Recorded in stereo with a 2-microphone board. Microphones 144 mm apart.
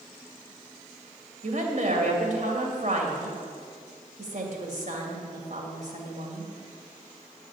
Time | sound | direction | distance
1.4 | a woman speaking | 60° right (ahead or behind) | 2.5 m